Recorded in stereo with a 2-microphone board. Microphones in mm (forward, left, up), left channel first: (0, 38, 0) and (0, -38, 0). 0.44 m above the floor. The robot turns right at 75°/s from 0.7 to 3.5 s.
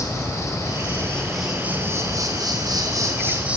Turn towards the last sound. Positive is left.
turn(degrees=-20)